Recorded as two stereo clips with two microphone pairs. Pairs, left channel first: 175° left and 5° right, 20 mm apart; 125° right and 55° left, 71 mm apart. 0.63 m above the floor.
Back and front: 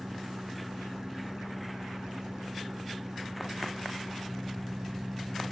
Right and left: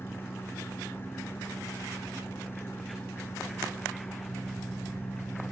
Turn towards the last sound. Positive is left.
turn(degrees=-65)